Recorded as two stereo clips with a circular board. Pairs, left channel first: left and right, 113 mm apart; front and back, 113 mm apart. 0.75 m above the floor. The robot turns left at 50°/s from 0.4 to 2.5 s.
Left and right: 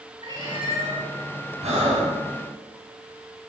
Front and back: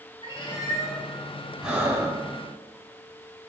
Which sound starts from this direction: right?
Breathing, at 1.6 s.